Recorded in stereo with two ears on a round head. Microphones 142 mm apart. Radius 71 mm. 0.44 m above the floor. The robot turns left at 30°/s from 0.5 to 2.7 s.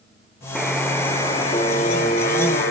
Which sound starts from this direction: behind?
A buzzer, at 0.6 s.